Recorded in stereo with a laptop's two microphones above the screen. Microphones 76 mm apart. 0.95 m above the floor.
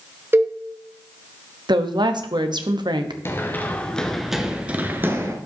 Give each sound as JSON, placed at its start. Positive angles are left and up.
{"t": 0.3, "sound": "a cowbell", "side_deg": -30, "distance_m": 0.8}
{"t": 1.7, "sound": "a woman speaking", "side_deg": -80, "distance_m": 0.9}
{"t": 3.2, "sound": "running footsteps", "side_deg": 35, "distance_m": 1.0}